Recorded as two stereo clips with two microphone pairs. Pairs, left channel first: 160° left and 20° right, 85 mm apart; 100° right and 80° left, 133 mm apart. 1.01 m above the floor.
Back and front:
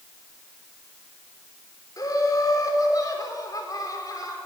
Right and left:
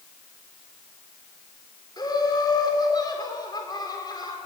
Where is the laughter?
155° right, 3.5 m.